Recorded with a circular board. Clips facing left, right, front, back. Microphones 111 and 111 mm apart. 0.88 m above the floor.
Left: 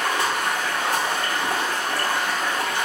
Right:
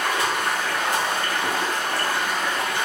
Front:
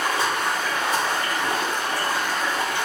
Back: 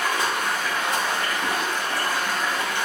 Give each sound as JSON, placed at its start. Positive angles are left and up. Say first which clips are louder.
{"t": 0.0, "sound": "running water", "louder": "even, front 1 dB", "azimuth_deg": 60, "distance_m": 1.7}